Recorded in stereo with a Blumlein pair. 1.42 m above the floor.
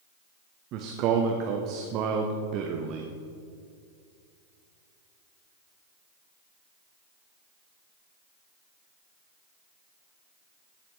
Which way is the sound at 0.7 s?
35° right.